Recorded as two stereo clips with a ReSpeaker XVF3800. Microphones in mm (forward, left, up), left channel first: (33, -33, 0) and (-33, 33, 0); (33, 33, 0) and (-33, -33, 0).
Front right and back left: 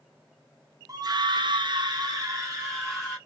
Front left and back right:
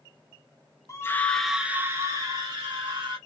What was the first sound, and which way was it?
A scream, 95° left.